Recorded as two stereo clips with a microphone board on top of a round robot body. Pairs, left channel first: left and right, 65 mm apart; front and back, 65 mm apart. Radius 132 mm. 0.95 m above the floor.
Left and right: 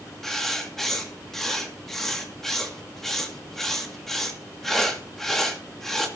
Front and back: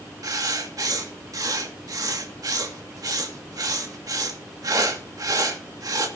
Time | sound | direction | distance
0.2 | writing | 175° left | 1.9 m